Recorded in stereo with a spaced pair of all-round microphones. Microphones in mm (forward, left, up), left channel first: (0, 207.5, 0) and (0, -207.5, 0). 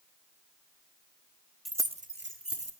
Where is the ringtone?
I don't hear a ringtone.